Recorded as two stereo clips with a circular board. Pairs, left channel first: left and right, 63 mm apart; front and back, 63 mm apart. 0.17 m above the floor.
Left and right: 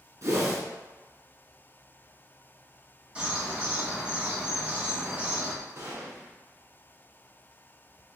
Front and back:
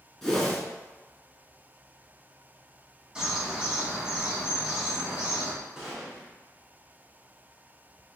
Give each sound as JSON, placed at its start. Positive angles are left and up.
{"t": 0.2, "sound": "a whoosh", "azimuth_deg": -80, "distance_m": 1.2}
{"t": 3.1, "sound": "a bird", "azimuth_deg": -120, "distance_m": 1.6}
{"t": 5.8, "sound": "a gunshot", "azimuth_deg": -105, "distance_m": 1.5}